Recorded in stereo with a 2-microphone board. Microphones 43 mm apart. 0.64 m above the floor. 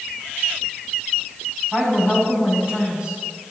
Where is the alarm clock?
I don't hear an alarm clock.